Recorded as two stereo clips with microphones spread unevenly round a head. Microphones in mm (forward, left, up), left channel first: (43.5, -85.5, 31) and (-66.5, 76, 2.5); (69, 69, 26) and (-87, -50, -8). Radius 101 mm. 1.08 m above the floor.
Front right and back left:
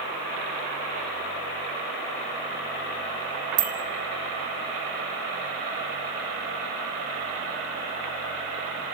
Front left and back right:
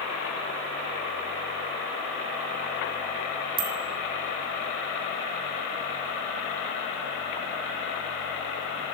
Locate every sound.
3.6 s a bicycle bell: 175° left, 3 m